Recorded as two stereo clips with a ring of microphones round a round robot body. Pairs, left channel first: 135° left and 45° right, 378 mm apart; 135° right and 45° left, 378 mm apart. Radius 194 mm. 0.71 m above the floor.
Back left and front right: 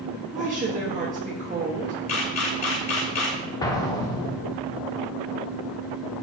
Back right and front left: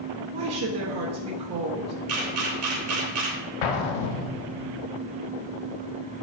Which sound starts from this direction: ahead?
A woman speaking, at 0.3 s.